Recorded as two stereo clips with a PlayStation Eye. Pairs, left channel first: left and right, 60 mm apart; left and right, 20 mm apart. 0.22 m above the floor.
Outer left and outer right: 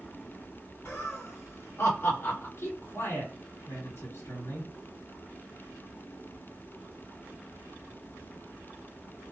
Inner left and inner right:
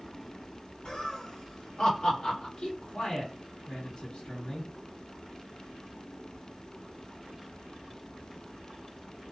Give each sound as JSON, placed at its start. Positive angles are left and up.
{"t": 0.8, "sound": "laughter", "side_deg": 45, "distance_m": 1.9}
{"t": 2.6, "sound": "a man speaking", "side_deg": 45, "distance_m": 3.0}